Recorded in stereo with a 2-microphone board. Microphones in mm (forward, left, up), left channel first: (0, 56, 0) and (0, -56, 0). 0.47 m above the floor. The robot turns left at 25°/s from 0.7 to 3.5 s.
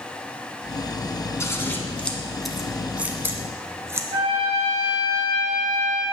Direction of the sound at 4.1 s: 65° right (ahead or behind).